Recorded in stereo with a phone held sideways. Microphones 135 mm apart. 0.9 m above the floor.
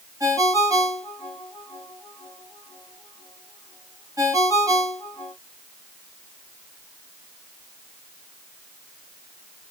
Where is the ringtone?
25° right (ahead or behind), 3 m.